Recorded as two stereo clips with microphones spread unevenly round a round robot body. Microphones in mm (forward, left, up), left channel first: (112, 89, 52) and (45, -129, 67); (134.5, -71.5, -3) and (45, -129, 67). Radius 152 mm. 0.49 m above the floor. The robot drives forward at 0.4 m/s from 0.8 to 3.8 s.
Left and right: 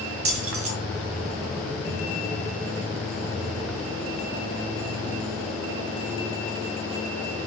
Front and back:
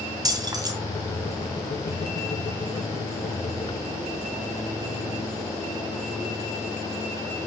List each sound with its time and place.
0.2 s keys jangling: 90° right, 2.5 m